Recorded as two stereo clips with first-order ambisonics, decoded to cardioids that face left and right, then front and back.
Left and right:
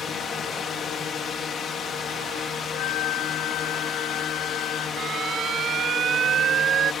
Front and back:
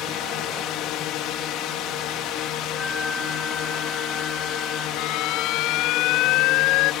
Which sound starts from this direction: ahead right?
An alarm, at 5.0 s.